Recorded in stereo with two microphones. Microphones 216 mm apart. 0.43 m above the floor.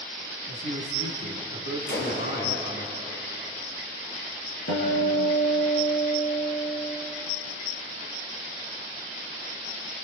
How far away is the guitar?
About 8 m.